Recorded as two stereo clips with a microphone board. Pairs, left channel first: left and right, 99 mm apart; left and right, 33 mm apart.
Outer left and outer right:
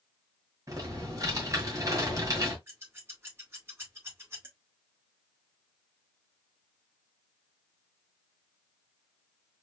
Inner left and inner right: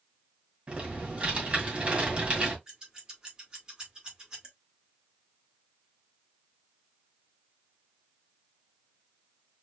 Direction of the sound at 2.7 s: 25° right (ahead or behind).